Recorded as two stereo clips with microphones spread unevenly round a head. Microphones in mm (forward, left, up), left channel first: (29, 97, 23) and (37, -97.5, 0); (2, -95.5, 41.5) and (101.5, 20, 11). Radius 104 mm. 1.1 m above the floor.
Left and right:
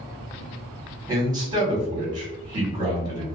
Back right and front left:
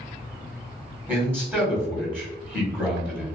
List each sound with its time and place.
1.1 s a man speaking: 20° right, 1.4 m